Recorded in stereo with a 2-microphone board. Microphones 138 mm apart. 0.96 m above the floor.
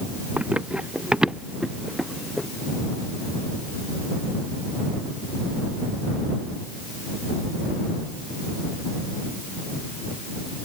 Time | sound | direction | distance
0.4 | running footsteps | 10° right (ahead or behind) | ?